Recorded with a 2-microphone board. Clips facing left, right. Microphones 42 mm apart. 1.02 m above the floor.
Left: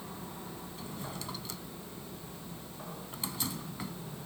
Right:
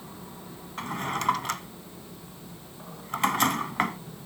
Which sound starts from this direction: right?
A drawer, at 0.8 s.